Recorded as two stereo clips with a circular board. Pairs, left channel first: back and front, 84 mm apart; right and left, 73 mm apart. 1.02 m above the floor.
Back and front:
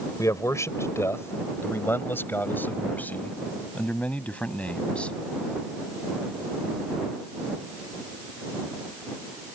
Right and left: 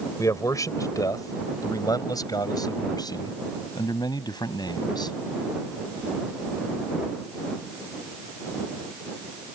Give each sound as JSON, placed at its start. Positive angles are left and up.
{"t": 0.2, "sound": "a man speaking", "azimuth_deg": -130}